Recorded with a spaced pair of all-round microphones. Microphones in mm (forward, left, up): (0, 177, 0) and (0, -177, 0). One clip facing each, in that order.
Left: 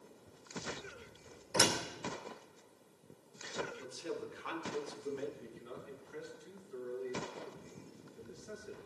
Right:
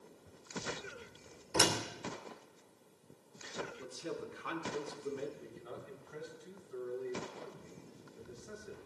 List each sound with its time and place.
1.5 s a door slam: 45° right (ahead or behind), 3 m
3.8 s a man speaking: 30° right (ahead or behind), 4 m
5.4 s a man speaking: 65° right (ahead or behind), 4.5 m